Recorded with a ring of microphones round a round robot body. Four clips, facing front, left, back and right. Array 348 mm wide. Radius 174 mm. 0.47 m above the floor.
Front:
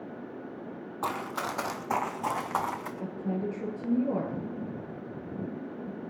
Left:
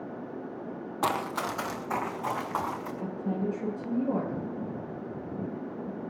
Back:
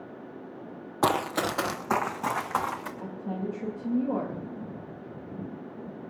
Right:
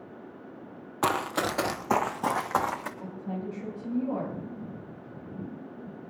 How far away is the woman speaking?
About 8 m.